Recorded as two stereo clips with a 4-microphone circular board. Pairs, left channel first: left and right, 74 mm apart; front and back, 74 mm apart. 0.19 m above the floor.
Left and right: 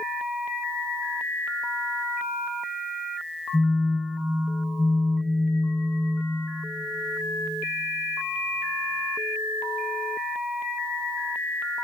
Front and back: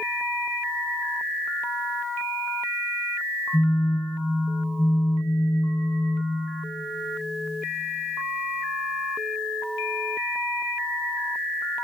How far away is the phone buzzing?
About 3 m.